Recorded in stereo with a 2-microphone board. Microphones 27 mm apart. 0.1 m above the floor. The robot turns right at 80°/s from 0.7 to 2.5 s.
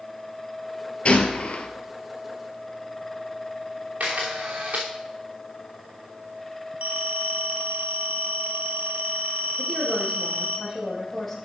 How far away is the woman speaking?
About 4 m.